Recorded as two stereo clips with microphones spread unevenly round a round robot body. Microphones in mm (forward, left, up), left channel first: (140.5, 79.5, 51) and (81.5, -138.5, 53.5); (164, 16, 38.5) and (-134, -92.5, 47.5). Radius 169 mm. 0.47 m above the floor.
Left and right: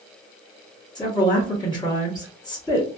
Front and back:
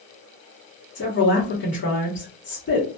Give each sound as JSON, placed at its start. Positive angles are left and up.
{"t": 0.9, "sound": "a woman speaking", "azimuth_deg": 15, "distance_m": 1.5}